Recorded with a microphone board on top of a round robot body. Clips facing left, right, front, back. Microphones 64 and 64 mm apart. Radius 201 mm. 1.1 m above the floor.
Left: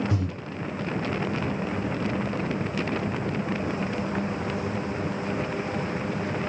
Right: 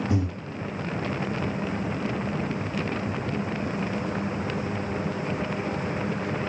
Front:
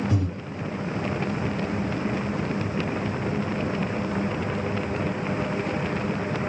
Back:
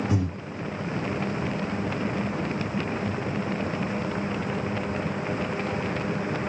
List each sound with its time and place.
0.1 s breathing: 120° right, 1.6 m